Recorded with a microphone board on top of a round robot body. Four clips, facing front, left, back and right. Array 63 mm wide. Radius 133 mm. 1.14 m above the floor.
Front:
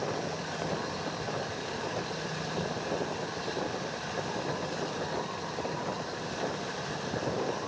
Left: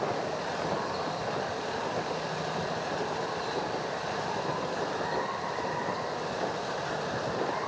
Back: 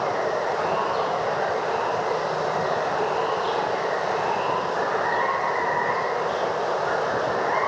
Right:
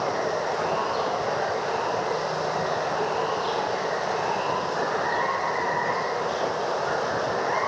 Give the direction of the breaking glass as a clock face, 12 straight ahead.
No breaking glass in this recording.